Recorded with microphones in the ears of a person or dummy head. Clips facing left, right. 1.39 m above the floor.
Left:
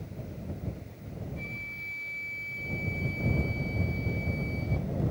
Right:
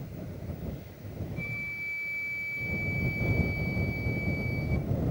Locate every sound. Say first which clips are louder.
1.4 s a flute: right 1 dB; 5° left (ahead or behind)